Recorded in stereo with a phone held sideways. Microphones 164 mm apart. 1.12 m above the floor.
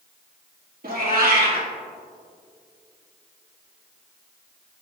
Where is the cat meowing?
65° right (ahead or behind), 3 m.